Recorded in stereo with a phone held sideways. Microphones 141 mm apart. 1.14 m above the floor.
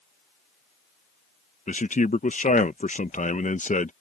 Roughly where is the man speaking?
Left.